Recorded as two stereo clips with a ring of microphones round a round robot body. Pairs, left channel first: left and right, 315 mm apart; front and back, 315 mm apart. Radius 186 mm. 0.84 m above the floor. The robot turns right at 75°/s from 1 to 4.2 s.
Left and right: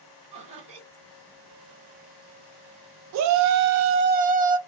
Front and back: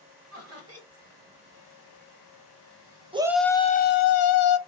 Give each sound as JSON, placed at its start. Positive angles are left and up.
{"t": 0.3, "sound": "laughter", "azimuth_deg": -160, "distance_m": 1.5}
{"t": 3.1, "sound": "a shout", "azimuth_deg": -110, "distance_m": 0.6}